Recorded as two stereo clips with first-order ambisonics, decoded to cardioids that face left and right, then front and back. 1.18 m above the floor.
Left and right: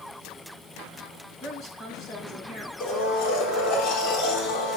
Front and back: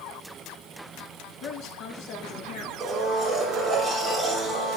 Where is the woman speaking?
25° left, 6 m.